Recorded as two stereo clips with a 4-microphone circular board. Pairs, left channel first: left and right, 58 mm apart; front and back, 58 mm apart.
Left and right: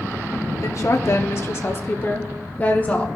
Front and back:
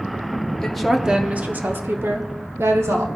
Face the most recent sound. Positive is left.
turn(degrees=155)